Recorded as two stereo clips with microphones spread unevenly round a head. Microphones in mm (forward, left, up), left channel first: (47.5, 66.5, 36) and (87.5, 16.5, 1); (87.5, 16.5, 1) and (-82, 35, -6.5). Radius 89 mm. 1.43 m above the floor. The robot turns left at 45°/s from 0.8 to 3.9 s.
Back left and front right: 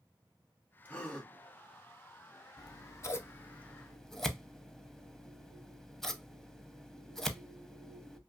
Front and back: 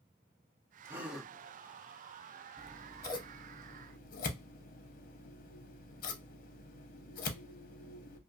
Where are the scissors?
85° left, 0.7 m; by 8.2 s 25° left, 0.7 m.